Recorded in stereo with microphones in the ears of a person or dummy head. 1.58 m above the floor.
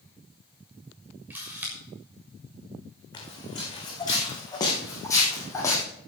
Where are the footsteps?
20° left (ahead or behind), 5 m; by 5.8 s 15° left (ahead or behind), 3 m.